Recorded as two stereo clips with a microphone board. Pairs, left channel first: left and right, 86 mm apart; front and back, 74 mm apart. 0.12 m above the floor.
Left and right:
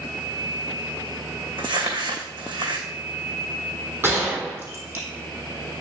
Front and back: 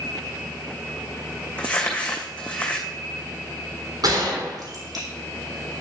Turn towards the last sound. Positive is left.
turn(degrees=-155)